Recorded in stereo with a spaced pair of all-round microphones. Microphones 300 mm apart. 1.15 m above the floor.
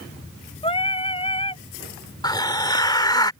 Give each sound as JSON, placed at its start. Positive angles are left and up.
{"t": 0.6, "sound": "singing", "side_deg": 20}
{"t": 2.2, "sound": "a hiss", "side_deg": 15}